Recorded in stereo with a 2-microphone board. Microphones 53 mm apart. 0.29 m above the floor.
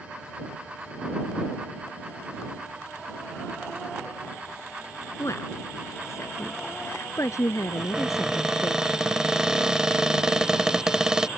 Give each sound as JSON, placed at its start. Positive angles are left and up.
{"t": 5.2, "sound": "a woman speaking", "side_deg": 55}
{"t": 7.8, "sound": "a cupboard door", "side_deg": -15}